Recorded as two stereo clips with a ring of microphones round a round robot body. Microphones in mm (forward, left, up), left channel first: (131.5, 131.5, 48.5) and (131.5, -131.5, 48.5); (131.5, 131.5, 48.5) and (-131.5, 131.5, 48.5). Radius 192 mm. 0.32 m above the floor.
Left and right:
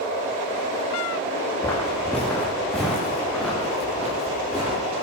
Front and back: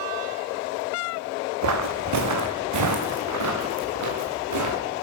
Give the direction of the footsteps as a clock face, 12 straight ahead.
6 o'clock.